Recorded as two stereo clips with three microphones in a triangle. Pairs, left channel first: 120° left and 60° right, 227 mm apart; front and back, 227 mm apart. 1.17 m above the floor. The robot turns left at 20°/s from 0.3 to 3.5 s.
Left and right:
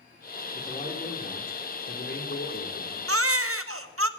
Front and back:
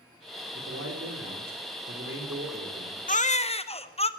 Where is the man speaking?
175° right, 4 m; by 3.0 s 135° left, 4 m.